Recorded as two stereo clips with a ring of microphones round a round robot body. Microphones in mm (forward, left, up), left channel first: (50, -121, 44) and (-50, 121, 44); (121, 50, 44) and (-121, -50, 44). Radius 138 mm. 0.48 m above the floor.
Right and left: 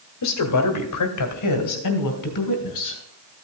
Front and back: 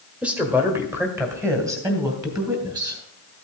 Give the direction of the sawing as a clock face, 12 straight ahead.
No sawing in this recording.